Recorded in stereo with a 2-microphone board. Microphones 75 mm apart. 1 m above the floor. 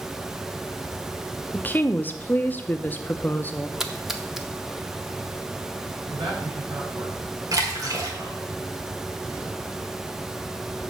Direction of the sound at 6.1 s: 65° right (ahead or behind).